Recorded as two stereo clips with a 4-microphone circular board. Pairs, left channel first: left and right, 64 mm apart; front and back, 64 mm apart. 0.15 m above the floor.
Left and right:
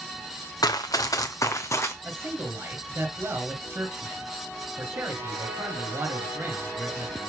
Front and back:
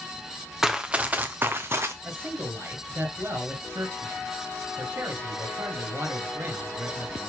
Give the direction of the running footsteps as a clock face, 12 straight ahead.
9 o'clock.